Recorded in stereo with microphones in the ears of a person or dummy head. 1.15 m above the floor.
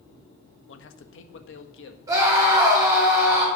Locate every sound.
0.7 s a man speaking: 75° left (ahead or behind), 1.0 m; by 2.0 s 80° left, 1.8 m
2.1 s a scream: 20° right (ahead or behind), 4 m